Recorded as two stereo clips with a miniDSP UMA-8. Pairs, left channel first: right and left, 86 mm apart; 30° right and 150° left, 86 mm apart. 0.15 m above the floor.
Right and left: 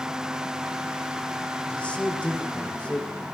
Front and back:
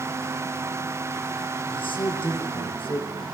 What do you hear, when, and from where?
1.7 s a man speaking: 15° right, 8 m